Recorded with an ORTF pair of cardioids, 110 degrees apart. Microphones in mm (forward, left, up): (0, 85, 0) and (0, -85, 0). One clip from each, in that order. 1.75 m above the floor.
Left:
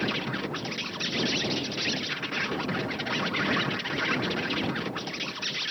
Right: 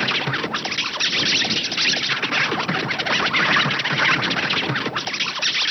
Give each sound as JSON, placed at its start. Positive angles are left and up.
{"t": 0.0, "sound": "an insect", "azimuth_deg": -55}